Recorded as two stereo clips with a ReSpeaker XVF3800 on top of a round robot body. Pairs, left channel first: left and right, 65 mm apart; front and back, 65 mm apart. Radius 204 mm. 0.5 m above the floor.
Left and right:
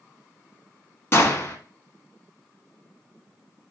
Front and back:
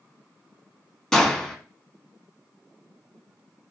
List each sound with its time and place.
1.1 s a gunshot: 75° left, 1.6 m